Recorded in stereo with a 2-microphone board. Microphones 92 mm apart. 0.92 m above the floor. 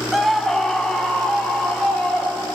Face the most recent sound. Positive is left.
turn(degrees=10)  # may be behind; listen again after turning